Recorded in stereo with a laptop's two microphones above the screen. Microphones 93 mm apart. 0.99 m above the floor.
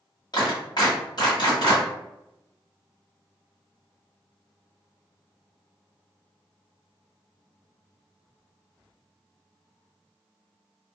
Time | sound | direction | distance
0.3 | a clap | 50° left (ahead or behind) | 1.4 m